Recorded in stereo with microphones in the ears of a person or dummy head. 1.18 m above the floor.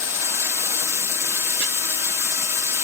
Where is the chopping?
55° right (ahead or behind), 2.5 m.